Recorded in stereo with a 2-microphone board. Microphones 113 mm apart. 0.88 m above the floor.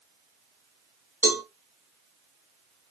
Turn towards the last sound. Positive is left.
turn(degrees=-15)  # may be behind; listen again after turning